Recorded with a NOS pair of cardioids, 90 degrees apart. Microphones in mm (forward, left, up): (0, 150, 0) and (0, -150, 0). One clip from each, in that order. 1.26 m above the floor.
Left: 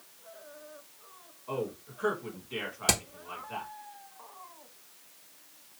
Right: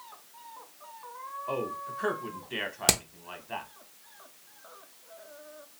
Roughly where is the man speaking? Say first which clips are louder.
Right 2 dB; ahead right.